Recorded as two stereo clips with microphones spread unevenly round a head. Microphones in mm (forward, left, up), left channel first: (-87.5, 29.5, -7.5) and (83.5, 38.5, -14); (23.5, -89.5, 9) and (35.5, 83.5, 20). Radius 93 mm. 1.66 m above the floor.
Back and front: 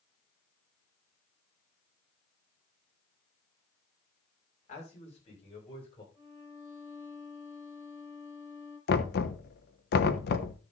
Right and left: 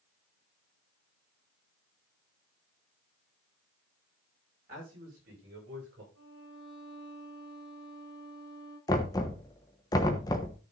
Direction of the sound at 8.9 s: 165° right.